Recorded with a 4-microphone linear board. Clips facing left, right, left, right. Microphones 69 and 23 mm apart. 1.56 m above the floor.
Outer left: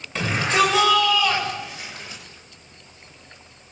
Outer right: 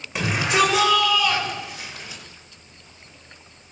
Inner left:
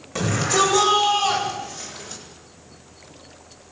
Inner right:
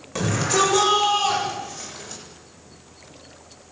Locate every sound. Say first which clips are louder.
0.1 s a shout: even, inner left 1 dB; 10° right (ahead or behind), 8 m; by 2.2 s centre (ahead or behind), 8.5 m